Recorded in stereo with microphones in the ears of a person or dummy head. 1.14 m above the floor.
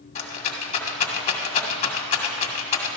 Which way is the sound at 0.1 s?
40° left (ahead or behind).